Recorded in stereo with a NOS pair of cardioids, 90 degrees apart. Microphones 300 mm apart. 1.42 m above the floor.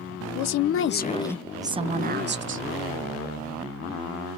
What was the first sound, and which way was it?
A woman speaking, 70° left.